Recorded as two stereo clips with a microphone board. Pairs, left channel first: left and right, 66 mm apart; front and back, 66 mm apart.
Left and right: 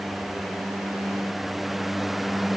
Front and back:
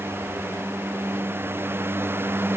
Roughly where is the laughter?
I don't hear laughter.